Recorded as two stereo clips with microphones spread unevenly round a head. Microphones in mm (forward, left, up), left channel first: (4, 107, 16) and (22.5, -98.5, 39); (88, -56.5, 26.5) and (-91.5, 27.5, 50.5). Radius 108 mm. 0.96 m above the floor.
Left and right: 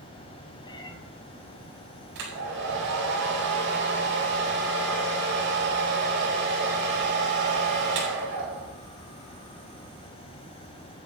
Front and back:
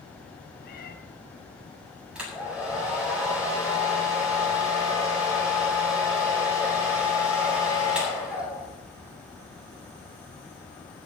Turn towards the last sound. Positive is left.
turn(degrees=-120)